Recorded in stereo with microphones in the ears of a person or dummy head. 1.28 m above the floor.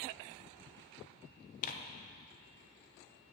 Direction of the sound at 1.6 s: 45° left (ahead or behind).